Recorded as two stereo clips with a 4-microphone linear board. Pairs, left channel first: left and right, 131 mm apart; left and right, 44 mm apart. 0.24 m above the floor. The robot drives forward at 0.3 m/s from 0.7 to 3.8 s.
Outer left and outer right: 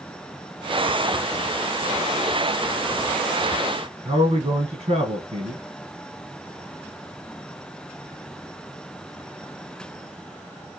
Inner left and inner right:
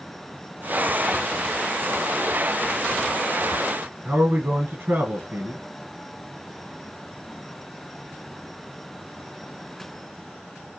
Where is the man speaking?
50° right (ahead or behind), 1.9 m.